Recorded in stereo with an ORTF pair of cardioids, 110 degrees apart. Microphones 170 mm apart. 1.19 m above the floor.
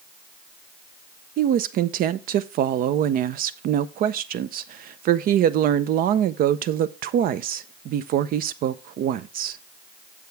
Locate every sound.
1.4 s a woman speaking: 65° right, 0.6 m